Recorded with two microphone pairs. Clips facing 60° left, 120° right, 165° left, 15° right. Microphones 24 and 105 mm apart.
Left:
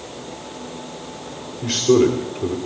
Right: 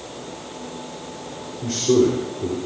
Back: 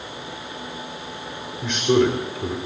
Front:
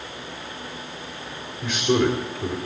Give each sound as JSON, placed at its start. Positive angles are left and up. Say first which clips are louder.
{"t": 1.6, "sound": "a man speaking", "louder": "left 2 dB, back 2 dB", "azimuth_deg": 85, "distance_m": 2.5}